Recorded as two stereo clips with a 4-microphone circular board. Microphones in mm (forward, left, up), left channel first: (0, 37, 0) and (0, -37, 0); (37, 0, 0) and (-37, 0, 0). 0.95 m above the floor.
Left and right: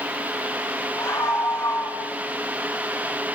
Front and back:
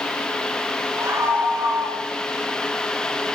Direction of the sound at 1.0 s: 130° left.